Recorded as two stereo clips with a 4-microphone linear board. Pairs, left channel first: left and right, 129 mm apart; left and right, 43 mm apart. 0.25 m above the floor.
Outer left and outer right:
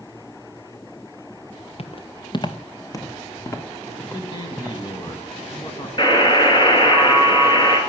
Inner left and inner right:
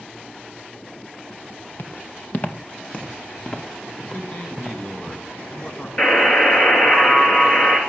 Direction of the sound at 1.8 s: 50° left (ahead or behind).